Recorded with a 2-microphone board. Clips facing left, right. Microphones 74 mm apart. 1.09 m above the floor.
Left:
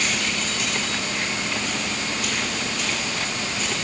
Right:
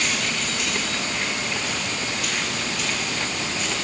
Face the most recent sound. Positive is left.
No sound to turn to.